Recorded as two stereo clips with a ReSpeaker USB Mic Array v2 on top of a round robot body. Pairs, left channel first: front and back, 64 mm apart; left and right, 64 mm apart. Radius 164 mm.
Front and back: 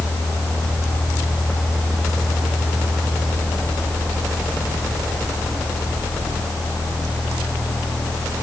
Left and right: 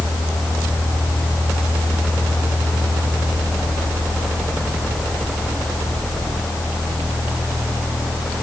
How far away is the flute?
I don't hear a flute.